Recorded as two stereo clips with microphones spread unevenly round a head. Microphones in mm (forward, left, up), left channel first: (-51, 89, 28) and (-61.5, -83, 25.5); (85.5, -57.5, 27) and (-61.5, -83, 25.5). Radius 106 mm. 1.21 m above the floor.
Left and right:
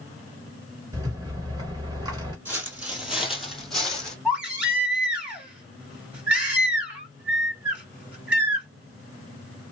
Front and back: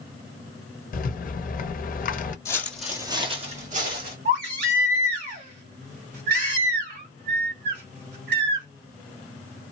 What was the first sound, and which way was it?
A rattle, 20° right.